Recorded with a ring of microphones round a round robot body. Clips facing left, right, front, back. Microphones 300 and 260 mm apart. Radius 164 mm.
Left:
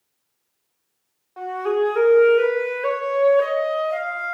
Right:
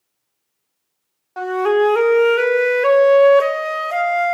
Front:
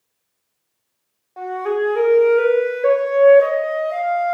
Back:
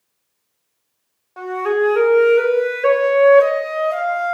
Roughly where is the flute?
Right.